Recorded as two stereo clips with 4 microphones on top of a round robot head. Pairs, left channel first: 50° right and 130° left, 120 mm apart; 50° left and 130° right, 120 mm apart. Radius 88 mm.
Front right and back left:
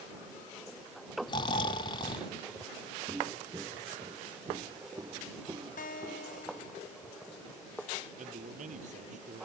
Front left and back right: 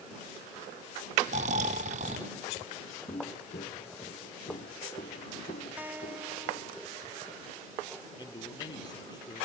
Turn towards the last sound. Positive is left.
turn(degrees=105)